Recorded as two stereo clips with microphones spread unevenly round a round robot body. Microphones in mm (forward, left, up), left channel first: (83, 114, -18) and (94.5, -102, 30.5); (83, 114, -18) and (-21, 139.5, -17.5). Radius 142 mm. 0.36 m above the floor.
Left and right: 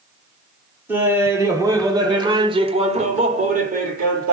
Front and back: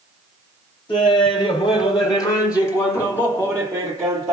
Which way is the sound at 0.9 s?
5° left.